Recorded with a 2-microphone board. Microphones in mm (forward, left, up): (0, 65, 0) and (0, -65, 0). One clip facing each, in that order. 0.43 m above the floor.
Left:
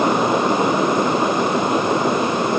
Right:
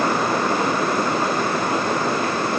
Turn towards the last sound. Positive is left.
No sound to turn to.